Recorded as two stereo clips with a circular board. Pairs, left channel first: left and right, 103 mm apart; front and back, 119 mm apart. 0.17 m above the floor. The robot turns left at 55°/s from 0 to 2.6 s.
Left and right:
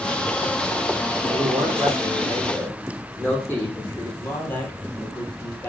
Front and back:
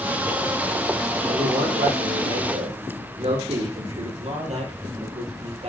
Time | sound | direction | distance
1.2 | a man speaking | 120° right | 8.5 m
4.2 | a man speaking | 160° left | 4.5 m